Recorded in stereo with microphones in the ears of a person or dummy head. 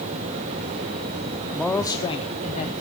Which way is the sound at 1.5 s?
Centre (ahead or behind).